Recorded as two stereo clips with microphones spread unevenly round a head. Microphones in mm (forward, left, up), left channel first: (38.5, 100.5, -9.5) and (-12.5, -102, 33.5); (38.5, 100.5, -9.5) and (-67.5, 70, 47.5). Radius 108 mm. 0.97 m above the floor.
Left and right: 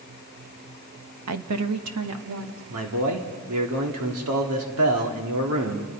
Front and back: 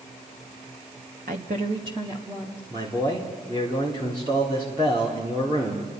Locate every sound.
1.3 s a woman speaking: 120° right, 1.2 m; by 2.6 s 75° right, 2.5 m
2.7 s a man speaking: 90° right, 3 m